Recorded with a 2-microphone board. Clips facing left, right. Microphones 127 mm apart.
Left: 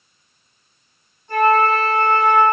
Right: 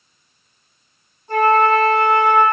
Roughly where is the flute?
Right.